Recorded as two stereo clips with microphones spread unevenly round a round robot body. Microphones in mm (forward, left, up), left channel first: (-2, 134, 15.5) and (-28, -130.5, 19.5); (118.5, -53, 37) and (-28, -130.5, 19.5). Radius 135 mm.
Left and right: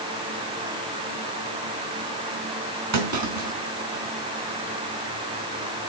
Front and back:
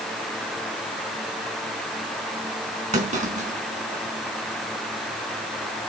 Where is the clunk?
110° right, 4 m.